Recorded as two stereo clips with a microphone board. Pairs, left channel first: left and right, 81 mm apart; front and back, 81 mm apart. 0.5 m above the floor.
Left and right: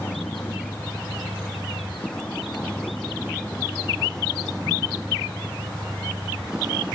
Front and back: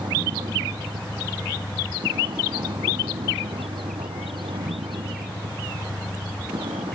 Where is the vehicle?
155° left; by 7.0 s 170° right.